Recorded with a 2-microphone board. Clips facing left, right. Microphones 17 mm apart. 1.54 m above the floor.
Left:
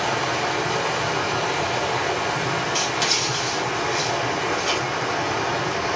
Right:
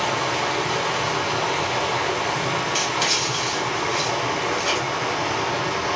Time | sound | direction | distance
0.0 | running water | 5° right (ahead or behind) | 1.9 m
2.8 | writing | 10° right (ahead or behind) | 0.9 m